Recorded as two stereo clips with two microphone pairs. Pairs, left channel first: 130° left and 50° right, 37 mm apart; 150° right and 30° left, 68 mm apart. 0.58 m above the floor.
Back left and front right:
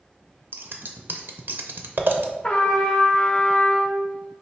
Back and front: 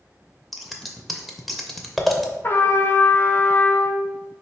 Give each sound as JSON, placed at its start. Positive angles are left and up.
{"t": 0.5, "sound": "scissors", "azimuth_deg": -60, "distance_m": 0.5}
{"t": 2.4, "sound": "a trumpet", "azimuth_deg": 180, "distance_m": 0.6}